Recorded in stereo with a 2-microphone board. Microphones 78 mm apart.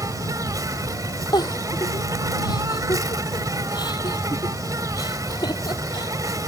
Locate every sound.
0.0 s an insect: 50° right (ahead or behind)
1.3 s a giggle: 60° left (ahead or behind)